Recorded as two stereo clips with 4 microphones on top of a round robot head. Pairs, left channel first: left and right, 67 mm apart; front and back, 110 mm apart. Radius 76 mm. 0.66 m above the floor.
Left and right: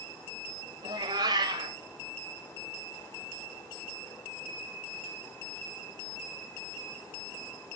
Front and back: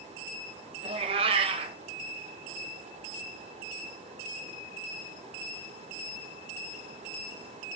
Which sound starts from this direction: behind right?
A cat meowing, at 0.8 s.